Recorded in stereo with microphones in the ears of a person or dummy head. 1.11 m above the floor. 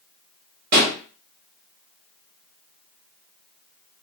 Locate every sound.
0.7 s a pop: 50° right (ahead or behind), 0.8 m